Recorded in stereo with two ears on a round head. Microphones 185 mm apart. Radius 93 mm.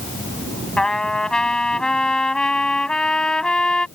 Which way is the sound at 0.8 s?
5° left (ahead or behind).